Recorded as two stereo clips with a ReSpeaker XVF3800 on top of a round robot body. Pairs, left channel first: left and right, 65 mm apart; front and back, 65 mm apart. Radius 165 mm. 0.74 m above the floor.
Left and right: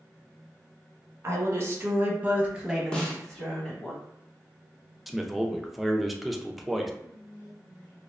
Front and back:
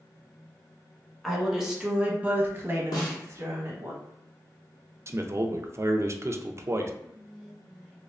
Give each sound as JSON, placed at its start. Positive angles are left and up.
{"t": 1.2, "sound": "a woman speaking", "azimuth_deg": -90, "distance_m": 1.2}
{"t": 2.9, "sound": "a snare drum", "azimuth_deg": 10, "distance_m": 0.6}
{"t": 5.1, "sound": "a man speaking", "azimuth_deg": 180, "distance_m": 0.5}
{"t": 7.0, "sound": "whispering", "azimuth_deg": 90, "distance_m": 0.8}